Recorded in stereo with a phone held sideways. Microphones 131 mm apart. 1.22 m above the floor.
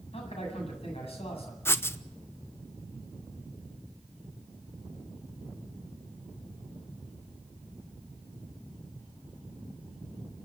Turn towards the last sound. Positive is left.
turn(degrees=20)  # may be behind; listen again after turning